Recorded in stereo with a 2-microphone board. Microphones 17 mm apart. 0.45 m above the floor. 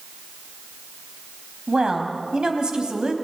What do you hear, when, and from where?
1.7 s a woman speaking: 50° right (ahead or behind), 3 m